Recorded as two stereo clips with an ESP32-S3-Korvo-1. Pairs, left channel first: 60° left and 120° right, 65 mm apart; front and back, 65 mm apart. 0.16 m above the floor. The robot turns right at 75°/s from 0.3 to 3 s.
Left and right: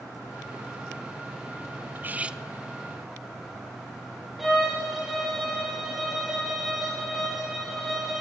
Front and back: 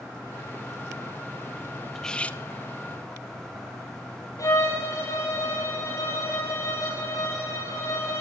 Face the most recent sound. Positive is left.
turn(degrees=-35)